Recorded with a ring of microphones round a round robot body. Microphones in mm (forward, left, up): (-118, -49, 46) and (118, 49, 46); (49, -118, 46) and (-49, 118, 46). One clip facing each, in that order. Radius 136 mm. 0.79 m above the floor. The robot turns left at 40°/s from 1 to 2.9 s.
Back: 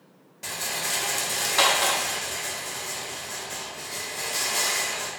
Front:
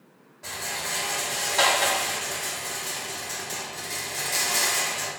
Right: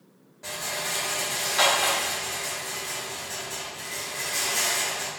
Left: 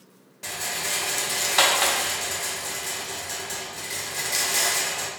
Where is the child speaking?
No child speaking in this recording.